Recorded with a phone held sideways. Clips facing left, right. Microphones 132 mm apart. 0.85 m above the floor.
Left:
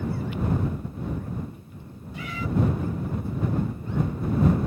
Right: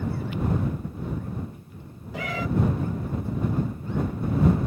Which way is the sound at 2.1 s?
80° right.